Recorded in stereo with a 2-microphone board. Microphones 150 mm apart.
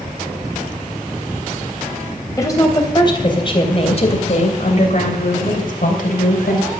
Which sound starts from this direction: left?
A woman speaking, at 2.4 s.